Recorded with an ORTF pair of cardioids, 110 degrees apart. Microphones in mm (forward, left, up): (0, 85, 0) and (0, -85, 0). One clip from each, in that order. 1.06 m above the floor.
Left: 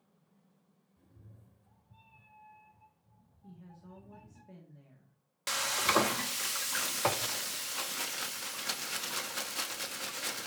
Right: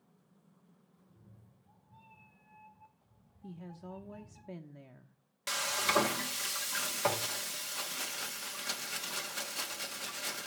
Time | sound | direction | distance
1.0 | a cat meowing | 55° left | 1.7 m
3.4 | a woman speaking | 55° right | 0.7 m
5.5 | frying | 15° left | 0.8 m